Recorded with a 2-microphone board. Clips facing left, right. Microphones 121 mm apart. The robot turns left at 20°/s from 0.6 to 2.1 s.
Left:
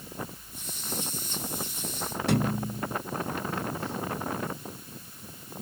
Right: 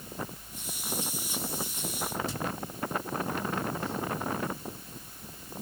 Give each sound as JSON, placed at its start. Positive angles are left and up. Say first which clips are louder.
{"t": 2.3, "sound": "a thud", "louder": "left 8 dB", "side_deg": 70}